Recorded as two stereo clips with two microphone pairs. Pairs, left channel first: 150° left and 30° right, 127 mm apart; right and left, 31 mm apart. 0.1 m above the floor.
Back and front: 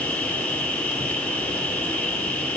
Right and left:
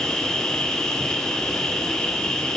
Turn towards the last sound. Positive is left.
turn(degrees=-145)